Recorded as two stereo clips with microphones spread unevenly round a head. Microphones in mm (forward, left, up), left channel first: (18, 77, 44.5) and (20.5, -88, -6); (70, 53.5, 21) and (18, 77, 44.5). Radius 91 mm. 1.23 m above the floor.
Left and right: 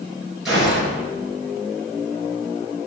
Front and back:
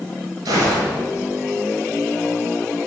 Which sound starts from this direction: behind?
A gunshot, at 0.5 s.